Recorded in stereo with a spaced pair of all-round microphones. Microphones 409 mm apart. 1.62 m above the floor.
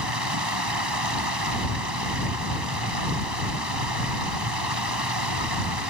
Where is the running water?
65° right (ahead or behind).